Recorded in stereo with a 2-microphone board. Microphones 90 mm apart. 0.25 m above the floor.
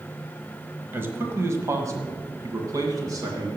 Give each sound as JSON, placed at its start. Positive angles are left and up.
{"t": 0.9, "sound": "a man speaking", "side_deg": -25, "distance_m": 1.1}